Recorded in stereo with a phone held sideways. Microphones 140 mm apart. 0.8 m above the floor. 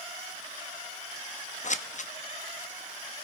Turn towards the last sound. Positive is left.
turn(degrees=60)  # may be behind; listen again after turning